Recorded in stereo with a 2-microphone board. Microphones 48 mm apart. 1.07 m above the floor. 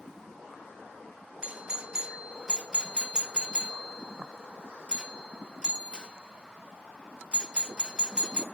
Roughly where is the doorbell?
Right.